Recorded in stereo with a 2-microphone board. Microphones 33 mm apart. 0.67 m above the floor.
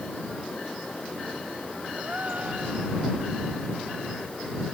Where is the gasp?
50° right (ahead or behind).